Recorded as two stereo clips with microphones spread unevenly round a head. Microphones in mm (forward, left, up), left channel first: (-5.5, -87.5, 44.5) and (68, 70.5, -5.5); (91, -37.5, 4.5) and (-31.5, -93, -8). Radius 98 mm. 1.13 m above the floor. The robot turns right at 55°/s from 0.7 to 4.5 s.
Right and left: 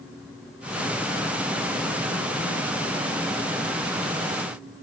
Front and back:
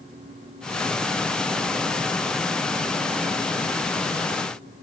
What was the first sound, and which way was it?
Only background noise.